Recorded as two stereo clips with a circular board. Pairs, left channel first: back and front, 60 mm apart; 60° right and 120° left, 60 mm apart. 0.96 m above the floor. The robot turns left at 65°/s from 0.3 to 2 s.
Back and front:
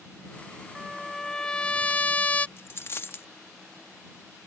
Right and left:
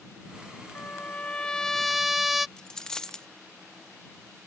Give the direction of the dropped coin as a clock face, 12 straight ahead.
5 o'clock.